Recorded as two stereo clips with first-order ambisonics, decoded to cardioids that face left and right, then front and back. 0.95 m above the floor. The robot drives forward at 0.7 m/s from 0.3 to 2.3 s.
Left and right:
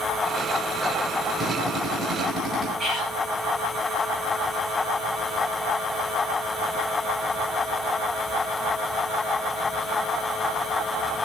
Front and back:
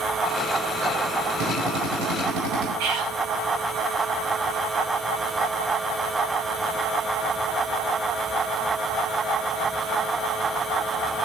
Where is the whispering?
165° left, 8 m.